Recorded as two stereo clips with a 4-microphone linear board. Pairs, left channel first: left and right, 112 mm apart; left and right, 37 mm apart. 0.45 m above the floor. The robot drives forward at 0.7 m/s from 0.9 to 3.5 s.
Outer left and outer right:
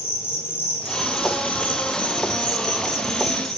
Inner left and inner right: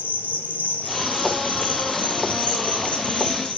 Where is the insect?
55° left (ahead or behind), 2 m; by 3.6 s 30° left (ahead or behind), 3.5 m.